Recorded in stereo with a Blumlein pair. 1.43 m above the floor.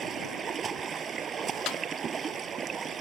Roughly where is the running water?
Ahead.